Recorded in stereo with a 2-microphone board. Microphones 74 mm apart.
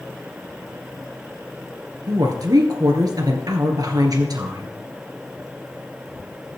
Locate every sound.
2.1 s a woman speaking: 60° right (ahead or behind), 2.5 m